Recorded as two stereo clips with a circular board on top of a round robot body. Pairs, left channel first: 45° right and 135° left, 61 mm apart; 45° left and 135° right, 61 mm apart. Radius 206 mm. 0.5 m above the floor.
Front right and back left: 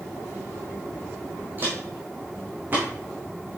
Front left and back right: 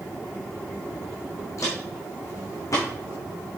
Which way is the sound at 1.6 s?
75° left.